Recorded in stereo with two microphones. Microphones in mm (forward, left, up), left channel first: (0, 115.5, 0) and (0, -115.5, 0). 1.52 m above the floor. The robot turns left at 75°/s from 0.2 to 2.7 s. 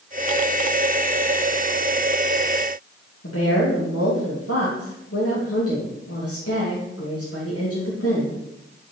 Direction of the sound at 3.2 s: 85° left.